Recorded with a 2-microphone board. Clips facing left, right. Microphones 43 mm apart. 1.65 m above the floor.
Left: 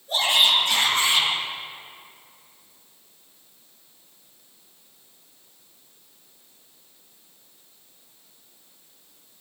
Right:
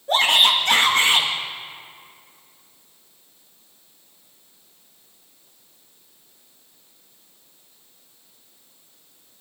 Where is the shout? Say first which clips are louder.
Right 3 dB; 75° right (ahead or behind), 2.5 m.